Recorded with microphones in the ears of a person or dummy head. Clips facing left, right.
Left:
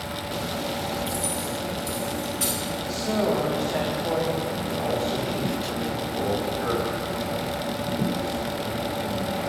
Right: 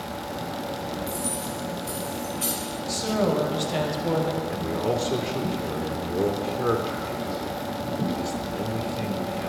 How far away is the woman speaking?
About 0.8 m.